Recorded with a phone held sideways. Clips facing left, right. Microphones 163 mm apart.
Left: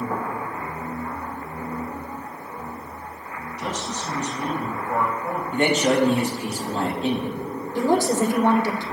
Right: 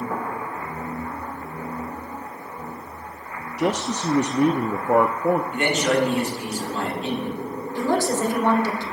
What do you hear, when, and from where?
3.6 s a man speaking: 70° right (ahead or behind), 0.5 m
5.5 s a man speaking: 35° left (ahead or behind), 3 m
7.8 s a woman speaking: 20° left (ahead or behind), 1.4 m